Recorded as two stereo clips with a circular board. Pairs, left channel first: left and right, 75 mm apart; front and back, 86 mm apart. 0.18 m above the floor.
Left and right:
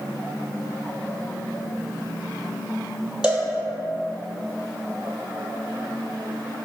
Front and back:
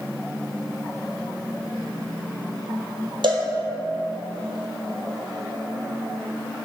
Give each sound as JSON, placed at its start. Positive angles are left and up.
{"t": 3.2, "sound": "a cowbell", "azimuth_deg": -165, "distance_m": 1.0}